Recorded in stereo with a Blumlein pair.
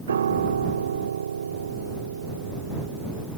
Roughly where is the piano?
Ahead right.